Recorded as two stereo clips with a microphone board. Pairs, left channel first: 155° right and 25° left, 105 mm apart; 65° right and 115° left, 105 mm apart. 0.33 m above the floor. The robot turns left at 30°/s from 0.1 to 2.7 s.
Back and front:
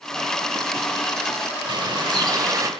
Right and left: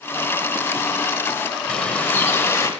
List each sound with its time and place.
1.7 s a bird: 10° left, 0.9 m; by 2.7 s 20° right, 0.9 m